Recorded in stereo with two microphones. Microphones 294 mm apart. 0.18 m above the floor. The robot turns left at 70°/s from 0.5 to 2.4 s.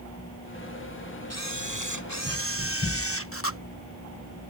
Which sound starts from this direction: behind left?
A camera shutter, at 1.3 s.